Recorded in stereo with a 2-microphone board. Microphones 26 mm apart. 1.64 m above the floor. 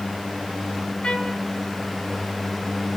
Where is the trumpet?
40° left (ahead or behind), 3.5 m.